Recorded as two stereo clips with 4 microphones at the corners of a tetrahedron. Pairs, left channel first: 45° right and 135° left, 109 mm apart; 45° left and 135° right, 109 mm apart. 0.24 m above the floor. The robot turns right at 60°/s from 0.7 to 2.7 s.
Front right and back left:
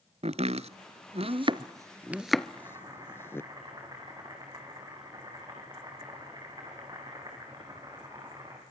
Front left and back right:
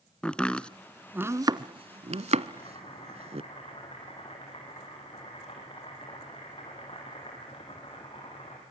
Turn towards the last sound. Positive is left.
turn(degrees=80)